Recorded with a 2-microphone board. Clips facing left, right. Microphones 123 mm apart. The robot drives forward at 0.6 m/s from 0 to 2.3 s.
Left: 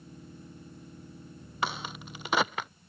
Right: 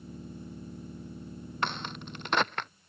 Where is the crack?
5° left (ahead or behind).